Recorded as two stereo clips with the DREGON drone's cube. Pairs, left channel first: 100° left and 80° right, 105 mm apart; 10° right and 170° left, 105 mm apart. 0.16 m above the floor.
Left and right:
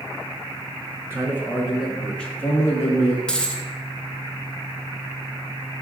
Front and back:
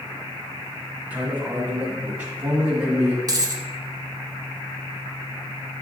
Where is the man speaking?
125° right, 1.2 m; by 3.2 s 90° left, 1.3 m.